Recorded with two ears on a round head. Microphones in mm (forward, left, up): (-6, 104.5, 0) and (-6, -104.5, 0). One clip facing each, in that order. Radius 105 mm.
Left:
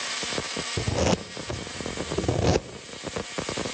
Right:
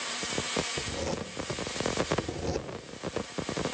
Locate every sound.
0.8 s a zipper: 75° left (ahead or behind), 0.6 m